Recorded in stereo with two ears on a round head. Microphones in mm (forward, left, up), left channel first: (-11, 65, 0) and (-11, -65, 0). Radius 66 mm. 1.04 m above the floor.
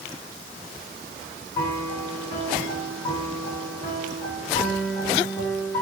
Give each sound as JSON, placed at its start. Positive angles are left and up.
{"t": 1.6, "sound": "a piano", "side_deg": 25, "distance_m": 7.5}